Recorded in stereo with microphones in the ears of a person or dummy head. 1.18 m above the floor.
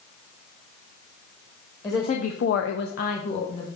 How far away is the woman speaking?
About 1.0 m.